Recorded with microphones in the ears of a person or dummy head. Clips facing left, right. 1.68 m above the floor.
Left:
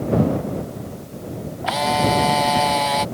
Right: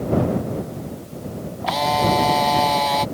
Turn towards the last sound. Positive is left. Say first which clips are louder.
# even
turn(degrees=0)  # may be behind; listen again after turning